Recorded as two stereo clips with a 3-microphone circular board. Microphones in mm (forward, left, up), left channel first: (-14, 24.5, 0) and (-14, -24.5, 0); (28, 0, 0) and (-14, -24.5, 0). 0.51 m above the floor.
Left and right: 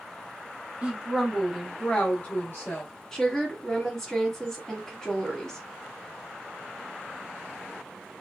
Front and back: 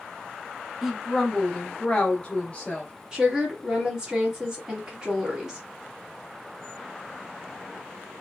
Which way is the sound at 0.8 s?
75° right.